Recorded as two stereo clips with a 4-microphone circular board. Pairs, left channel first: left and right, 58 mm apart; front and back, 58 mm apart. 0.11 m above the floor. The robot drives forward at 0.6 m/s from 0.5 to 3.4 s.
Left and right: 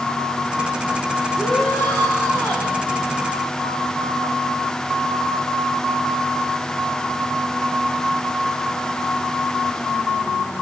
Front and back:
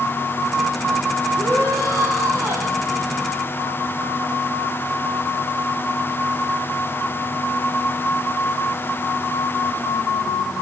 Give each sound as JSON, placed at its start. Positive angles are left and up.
{"t": 1.4, "sound": "a shout", "azimuth_deg": 145, "distance_m": 10.0}